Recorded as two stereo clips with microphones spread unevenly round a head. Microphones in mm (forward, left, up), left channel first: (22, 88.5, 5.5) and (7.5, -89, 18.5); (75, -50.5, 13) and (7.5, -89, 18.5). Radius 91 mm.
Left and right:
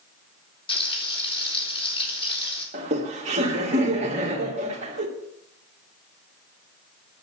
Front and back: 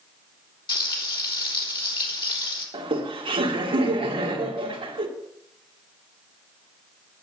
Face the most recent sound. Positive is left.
turn(degrees=-150)